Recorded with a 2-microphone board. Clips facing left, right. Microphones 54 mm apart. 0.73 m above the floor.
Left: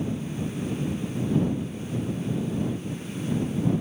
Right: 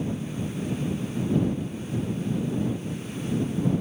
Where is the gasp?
No gasp in this recording.